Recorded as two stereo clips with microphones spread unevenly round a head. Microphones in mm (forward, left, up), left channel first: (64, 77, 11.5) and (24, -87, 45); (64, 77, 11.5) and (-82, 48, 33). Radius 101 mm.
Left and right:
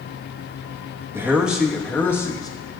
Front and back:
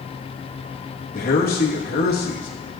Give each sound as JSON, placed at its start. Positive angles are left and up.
{"t": 1.1, "sound": "a man speaking", "azimuth_deg": -25, "distance_m": 1.8}